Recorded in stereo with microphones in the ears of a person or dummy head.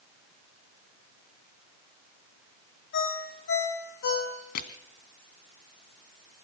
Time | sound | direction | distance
2.9 | a ringtone | 60° left (ahead or behind) | 4.5 m
4.5 | crushing | 55° left (ahead or behind) | 1.9 m